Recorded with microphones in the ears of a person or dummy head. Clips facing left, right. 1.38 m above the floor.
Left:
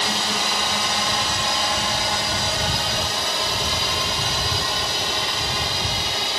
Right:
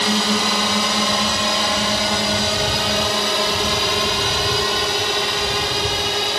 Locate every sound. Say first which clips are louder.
0.0 s a drone: right 7 dB; 55° right (ahead or behind); by 6.4 s 40° right (ahead or behind)